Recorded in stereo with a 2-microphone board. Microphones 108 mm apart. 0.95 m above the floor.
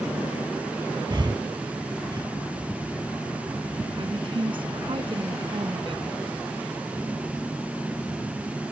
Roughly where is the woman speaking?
Right.